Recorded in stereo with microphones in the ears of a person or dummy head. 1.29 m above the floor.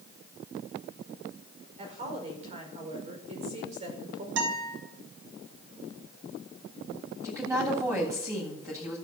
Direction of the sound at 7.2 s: 15° right (ahead or behind).